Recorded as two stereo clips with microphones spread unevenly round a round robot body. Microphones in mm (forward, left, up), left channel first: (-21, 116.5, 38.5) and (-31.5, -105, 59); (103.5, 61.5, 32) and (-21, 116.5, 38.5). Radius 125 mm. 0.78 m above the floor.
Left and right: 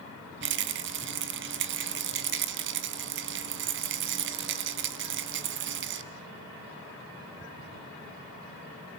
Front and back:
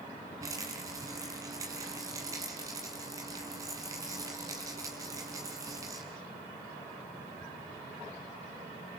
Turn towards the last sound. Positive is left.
turn(degrees=-125)